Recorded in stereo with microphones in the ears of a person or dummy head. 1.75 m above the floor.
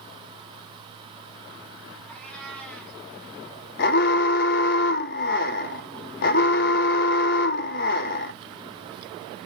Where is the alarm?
55° left (ahead or behind), 0.9 m.